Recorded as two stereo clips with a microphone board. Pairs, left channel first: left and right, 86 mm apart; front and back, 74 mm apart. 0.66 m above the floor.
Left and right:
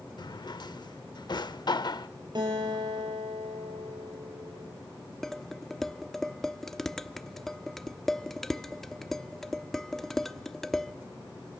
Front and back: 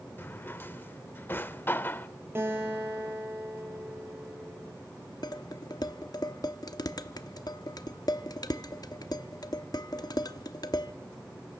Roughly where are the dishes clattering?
Ahead.